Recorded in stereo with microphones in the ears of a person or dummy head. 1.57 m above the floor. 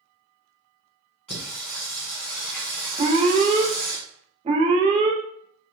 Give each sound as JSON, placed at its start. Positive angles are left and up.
{"t": 1.3, "sound": "singing", "side_deg": 5, "distance_m": 1.5}
{"t": 3.0, "sound": "an alarm", "side_deg": -30, "distance_m": 0.7}